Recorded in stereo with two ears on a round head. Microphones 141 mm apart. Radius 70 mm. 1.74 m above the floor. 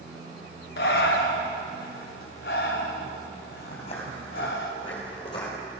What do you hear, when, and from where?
0.8 s breathing: 65° left (ahead or behind), 1.5 m
3.7 s footsteps: 40° left (ahead or behind), 3 m; by 5.5 s 25° left (ahead or behind), 3.5 m